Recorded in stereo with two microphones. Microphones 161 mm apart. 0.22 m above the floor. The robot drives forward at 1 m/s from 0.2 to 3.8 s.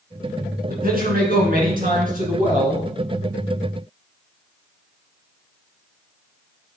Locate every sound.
0.7 s a man speaking: 60° right (ahead or behind), 2.5 m; by 2.8 s 50° right (ahead or behind), 3 m